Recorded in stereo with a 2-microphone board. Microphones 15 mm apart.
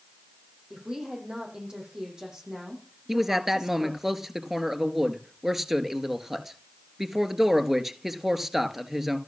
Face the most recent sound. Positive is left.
turn(degrees=-15)  # may be behind; listen again after turning